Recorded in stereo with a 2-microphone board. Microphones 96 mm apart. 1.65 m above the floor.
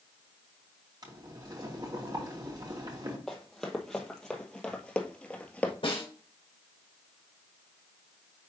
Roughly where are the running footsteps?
Centre.